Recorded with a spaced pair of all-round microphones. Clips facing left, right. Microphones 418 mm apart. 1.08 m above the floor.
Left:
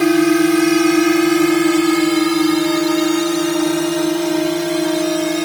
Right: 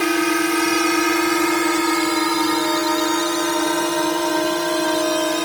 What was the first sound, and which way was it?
A drone, 55° left (ahead or behind).